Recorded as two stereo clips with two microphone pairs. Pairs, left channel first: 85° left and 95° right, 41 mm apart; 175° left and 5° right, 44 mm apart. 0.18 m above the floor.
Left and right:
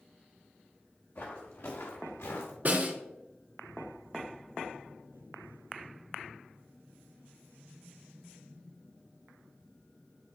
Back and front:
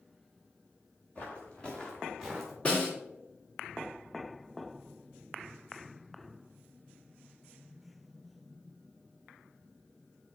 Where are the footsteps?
115° left, 2.5 m; by 2.5 s 80° left, 2 m.